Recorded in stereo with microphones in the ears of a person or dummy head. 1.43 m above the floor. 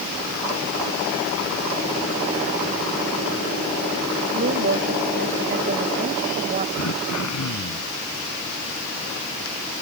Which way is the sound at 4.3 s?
55° right (ahead or behind).